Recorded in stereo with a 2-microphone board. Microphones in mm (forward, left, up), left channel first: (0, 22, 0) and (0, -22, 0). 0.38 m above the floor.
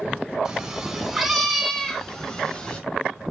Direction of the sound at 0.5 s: 20° right (ahead or behind).